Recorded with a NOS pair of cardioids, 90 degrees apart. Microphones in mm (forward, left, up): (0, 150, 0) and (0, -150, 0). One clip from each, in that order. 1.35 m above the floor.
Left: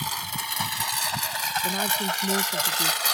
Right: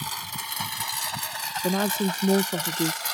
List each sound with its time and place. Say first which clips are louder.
0.0 s a lawn mower: left 3 dB; 20° left; by 3.1 s 45° left
1.6 s a woman speaking: left 1 dB; 50° right